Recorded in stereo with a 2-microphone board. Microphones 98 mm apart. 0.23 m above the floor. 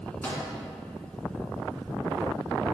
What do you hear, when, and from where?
0.2 s a microwave: 15° left (ahead or behind), 2 m